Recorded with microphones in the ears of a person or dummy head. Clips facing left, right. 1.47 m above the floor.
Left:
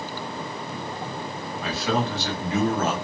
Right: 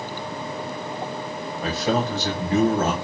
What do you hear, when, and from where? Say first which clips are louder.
1.6 s a man speaking: right 2 dB; 30° right (ahead or behind), 0.9 m